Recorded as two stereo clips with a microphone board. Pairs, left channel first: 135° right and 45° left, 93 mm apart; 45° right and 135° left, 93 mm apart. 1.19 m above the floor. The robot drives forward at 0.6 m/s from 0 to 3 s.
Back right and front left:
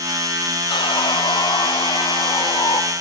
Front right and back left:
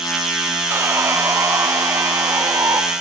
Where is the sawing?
165° right, 1.3 m; by 2.8 s 170° right, 2.5 m.